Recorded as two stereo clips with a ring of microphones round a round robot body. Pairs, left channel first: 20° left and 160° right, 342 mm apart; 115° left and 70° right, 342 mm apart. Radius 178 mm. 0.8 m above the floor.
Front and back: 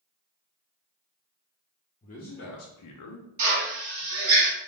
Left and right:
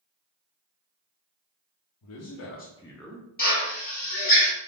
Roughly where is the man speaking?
Left.